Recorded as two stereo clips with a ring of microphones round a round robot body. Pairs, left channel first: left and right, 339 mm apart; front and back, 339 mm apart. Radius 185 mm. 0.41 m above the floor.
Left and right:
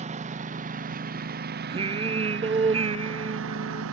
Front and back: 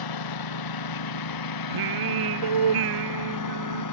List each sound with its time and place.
0.0 s a lawn mower: 15° right; by 3.9 s 35° right
1.7 s singing: 165° right